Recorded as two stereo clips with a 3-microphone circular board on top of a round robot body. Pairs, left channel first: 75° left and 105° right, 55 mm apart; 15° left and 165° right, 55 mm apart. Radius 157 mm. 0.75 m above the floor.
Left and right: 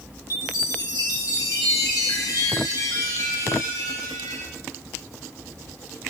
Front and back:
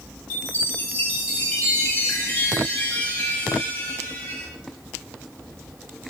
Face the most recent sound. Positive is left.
turn(degrees=80)